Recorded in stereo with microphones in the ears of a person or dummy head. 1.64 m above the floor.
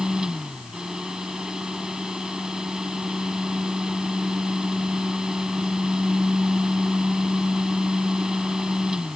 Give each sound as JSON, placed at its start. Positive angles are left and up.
{"t": 0.0, "sound": "a fan", "side_deg": 0}